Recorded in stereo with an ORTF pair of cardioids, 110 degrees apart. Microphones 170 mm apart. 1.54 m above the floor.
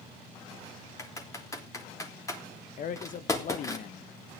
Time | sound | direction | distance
1.0 | typing on a keyboard | 20° left | 3.5 m
2.8 | a man speaking | 55° left | 1.4 m